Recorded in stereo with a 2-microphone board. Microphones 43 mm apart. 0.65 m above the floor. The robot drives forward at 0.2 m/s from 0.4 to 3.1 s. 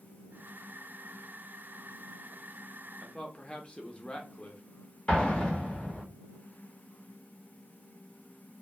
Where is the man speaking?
25° left (ahead or behind), 0.5 m.